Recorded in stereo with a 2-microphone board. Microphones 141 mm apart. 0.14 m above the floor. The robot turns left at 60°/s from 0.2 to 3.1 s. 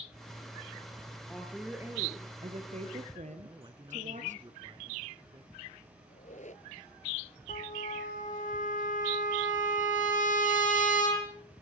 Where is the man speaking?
35° right (ahead or behind), 2.0 m.